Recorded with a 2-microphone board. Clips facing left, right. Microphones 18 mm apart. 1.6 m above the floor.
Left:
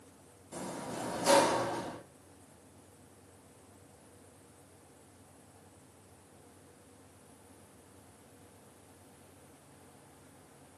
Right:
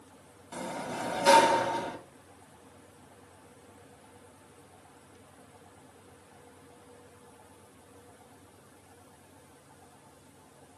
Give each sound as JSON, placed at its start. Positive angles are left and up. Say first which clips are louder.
{"t": 0.5, "sound": "a sliding door", "louder": "right 4 dB", "side_deg": -45, "distance_m": 1.9}